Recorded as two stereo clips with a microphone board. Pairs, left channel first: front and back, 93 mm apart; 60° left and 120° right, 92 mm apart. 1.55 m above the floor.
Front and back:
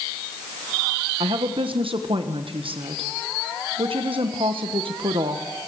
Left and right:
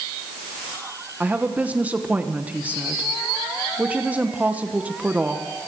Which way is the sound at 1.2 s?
165° left.